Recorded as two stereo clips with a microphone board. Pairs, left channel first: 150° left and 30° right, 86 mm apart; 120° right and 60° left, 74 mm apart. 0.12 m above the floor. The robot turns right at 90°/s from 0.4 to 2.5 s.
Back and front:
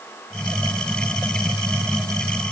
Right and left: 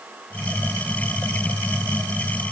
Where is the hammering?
I don't hear hammering.